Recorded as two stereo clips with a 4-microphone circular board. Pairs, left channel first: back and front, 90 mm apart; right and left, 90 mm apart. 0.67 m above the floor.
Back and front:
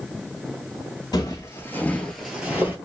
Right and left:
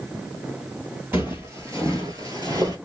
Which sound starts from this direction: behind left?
Footsteps, at 1.1 s.